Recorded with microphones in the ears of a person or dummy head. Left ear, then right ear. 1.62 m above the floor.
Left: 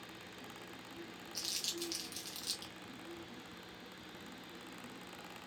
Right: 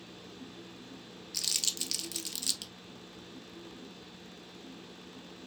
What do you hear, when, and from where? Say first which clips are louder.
1.3 s crumpling: right 7 dB; 50° right (ahead or behind), 0.7 m